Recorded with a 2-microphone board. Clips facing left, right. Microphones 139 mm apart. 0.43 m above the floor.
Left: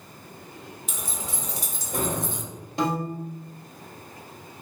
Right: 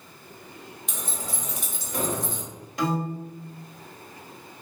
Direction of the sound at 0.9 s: Centre (ahead or behind).